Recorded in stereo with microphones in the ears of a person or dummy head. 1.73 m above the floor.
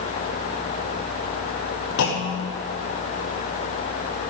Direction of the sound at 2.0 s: 50° left (ahead or behind).